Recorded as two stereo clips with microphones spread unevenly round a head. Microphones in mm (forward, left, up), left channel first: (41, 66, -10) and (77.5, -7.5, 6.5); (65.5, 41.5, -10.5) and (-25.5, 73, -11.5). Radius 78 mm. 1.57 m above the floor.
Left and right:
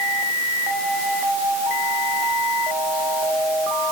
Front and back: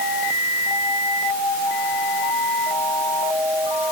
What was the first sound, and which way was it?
Only background noise.